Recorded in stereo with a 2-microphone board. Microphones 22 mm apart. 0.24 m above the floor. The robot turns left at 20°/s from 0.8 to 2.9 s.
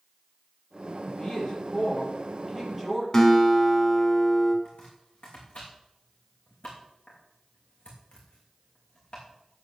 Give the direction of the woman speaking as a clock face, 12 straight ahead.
11 o'clock.